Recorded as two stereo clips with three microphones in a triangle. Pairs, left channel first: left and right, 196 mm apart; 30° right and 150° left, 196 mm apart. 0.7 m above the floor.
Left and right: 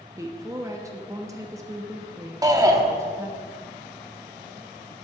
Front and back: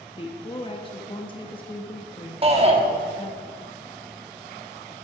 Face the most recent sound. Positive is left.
turn(degrees=-155)